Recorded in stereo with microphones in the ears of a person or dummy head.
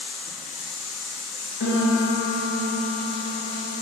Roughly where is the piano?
Left.